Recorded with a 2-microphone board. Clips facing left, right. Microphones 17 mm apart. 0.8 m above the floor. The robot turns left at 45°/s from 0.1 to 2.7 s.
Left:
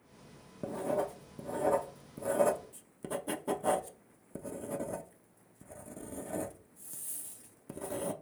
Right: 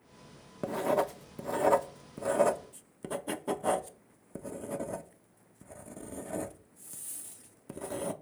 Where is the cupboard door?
I don't hear a cupboard door.